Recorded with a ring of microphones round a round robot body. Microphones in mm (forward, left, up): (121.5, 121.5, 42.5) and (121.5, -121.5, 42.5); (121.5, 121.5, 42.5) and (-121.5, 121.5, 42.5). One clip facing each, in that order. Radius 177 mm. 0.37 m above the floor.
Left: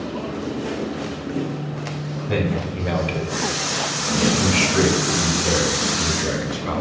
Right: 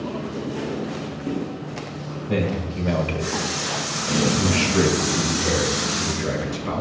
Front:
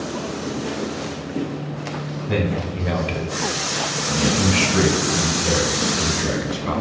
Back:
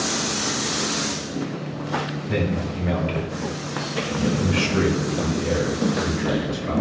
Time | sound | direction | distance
2.3 | a man speaking | 30° left | 1.5 m